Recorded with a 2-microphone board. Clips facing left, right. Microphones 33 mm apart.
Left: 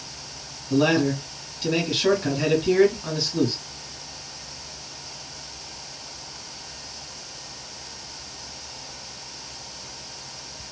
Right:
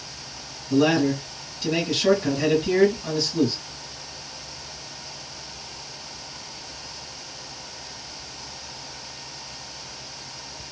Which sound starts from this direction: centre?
A man speaking, at 0.7 s.